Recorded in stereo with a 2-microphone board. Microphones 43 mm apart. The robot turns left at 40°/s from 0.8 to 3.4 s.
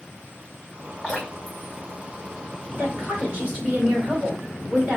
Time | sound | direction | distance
1.0 | dripping | 5° left (ahead or behind) | 1.6 m
2.8 | a woman speaking | 45° right (ahead or behind) | 1.7 m